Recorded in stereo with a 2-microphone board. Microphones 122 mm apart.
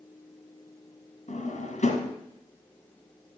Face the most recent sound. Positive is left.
turn(degrees=80)